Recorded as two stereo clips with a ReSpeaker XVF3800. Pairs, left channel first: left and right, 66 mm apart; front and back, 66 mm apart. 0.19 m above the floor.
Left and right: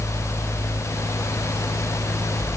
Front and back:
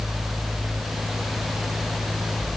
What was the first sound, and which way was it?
Only background noise.